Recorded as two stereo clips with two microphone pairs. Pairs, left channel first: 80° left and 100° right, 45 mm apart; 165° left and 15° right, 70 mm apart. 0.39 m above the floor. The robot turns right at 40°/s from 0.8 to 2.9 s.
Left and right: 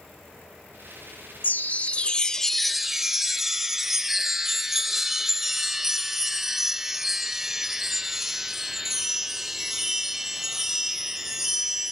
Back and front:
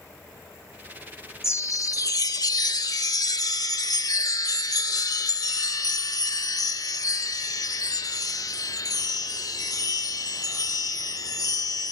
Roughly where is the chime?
Behind left.